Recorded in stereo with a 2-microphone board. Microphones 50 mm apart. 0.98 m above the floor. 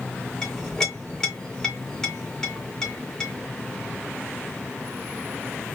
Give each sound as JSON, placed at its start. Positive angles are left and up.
{"t": 0.4, "sound": "a clink", "side_deg": 10, "distance_m": 1.4}